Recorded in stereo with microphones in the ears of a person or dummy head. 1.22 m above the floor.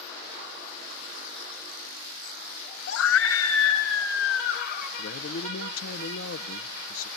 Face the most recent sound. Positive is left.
turn(degrees=65)  # may be behind; listen again after turning